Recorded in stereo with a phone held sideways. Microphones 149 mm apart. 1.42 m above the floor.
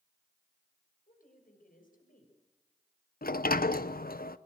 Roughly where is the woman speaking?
Left.